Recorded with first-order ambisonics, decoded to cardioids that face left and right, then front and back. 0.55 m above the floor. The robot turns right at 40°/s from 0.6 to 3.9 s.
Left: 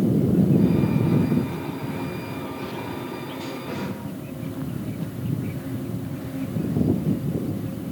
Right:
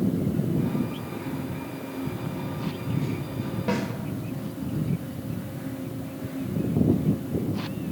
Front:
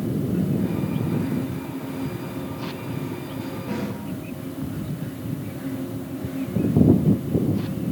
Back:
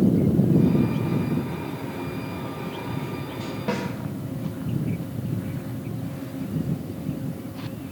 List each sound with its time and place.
3.7 s a snare drum: 135° right, 2 m; by 3.9 s 130° right, 2 m